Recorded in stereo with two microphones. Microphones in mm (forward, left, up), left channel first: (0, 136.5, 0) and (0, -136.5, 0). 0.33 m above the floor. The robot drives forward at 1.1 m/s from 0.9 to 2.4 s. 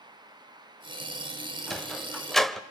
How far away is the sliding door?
About 1.5 m.